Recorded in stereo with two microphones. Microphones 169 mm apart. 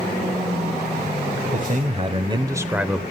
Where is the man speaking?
50° right (ahead or behind), 1.2 m; by 3.0 s centre (ahead or behind), 0.9 m.